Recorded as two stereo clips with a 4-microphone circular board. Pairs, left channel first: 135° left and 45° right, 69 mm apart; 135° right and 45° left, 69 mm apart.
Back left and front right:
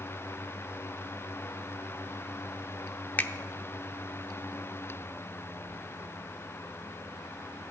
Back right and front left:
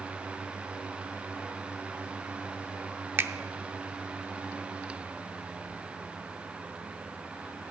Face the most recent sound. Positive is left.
turn(degrees=85)